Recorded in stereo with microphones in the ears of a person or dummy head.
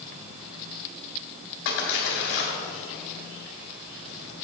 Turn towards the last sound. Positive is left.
turn(degrees=65)  # may be behind; listen again after turning